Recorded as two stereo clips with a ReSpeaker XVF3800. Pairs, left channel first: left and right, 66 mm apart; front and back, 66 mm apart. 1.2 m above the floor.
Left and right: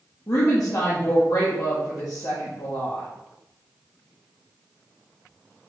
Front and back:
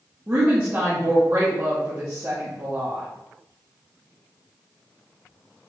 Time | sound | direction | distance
0.3 | a woman speaking | 125° left | 0.9 m